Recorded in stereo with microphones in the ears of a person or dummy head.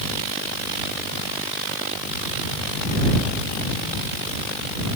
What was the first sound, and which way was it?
Only background noise.